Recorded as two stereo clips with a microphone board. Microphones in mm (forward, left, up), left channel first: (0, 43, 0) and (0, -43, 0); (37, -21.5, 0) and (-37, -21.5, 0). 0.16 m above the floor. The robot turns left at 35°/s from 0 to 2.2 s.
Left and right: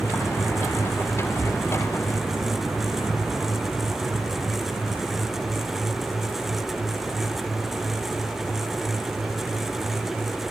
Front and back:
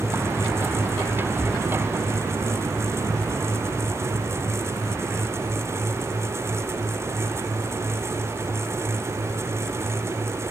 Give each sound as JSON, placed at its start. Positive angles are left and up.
{"t": 1.4, "sound": "breathing", "azimuth_deg": -70}